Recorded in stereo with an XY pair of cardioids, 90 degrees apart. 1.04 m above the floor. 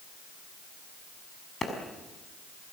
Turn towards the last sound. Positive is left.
turn(degrees=35)